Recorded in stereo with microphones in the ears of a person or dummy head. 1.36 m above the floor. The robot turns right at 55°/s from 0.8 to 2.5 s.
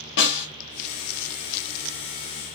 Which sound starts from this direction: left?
A snare drum, at 0.2 s.